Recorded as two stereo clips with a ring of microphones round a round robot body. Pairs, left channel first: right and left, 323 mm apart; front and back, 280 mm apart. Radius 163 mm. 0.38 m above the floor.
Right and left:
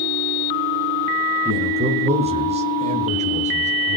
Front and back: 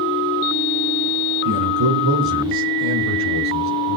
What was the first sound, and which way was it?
A man speaking, 165° left.